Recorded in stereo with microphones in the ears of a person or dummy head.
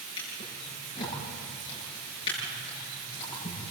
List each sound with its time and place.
0.2 s a drawer: 35° left (ahead or behind), 9 m